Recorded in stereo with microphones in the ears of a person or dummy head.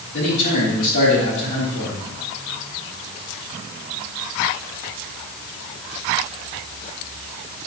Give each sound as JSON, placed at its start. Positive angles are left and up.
{"t": 0.1, "sound": "a man speaking", "side_deg": 55, "distance_m": 2.5}